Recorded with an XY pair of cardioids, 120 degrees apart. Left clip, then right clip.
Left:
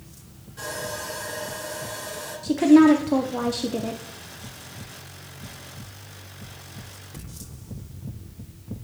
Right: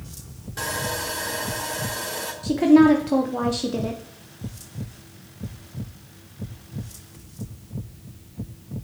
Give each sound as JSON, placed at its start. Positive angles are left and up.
{"t": 0.6, "sound": "sawing", "azimuth_deg": -70, "distance_m": 2.0}
{"t": 2.4, "sound": "a woman speaking", "azimuth_deg": 0, "distance_m": 0.6}